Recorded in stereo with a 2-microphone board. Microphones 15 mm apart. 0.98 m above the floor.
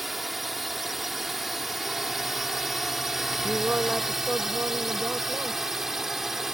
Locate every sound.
0.0 s a drone: 10° right (ahead or behind); by 6.5 s 20° right (ahead or behind)
3.4 s a woman speaking: 55° right (ahead or behind)